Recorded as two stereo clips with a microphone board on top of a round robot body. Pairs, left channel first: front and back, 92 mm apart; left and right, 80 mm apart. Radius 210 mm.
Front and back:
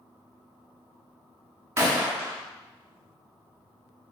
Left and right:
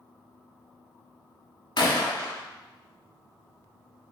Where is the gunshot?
120° left, 1.2 m.